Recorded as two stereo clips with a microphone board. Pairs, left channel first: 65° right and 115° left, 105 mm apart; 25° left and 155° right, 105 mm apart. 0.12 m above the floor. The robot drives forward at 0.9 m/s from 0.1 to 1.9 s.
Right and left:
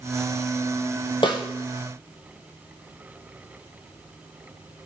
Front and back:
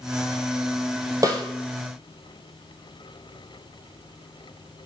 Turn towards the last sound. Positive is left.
turn(degrees=-130)